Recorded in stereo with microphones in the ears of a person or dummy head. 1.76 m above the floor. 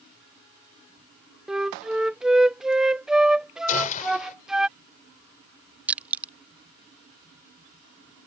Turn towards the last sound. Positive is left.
turn(degrees=-10)  # may be behind; listen again after turning